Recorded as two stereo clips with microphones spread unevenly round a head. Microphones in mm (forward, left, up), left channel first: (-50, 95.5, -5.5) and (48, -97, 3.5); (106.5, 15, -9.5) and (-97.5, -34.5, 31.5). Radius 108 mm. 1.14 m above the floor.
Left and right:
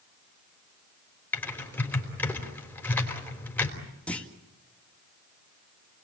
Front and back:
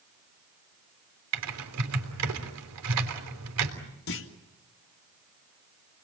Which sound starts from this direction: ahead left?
A clunk, at 4.1 s.